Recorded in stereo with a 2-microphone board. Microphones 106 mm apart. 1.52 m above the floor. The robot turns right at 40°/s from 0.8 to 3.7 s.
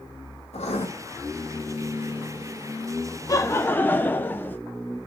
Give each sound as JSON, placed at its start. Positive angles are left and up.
{"t": 0.5, "sound": "writing", "side_deg": 80, "distance_m": 3.0}
{"t": 3.3, "sound": "laughter", "side_deg": 35, "distance_m": 0.7}